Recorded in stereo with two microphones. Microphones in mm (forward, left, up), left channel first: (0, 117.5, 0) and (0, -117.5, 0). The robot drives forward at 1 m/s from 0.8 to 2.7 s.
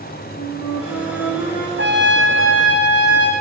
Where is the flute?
80° left, 1.6 m; by 1.7 s 55° left (ahead or behind), 2.0 m.